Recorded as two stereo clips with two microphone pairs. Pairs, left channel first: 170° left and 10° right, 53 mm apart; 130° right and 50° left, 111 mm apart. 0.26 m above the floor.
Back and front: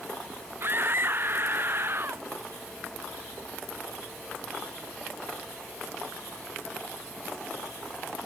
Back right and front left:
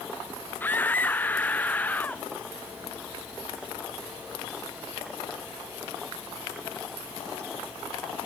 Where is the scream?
55° right.